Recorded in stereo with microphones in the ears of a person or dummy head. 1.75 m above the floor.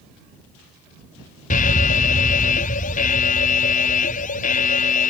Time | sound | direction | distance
1.5 | an alarm | 40° left (ahead or behind) | ?